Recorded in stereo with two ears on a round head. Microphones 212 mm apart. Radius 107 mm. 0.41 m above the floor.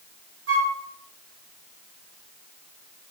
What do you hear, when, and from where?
0.5 s a flute: 50° right (ahead or behind), 1.5 m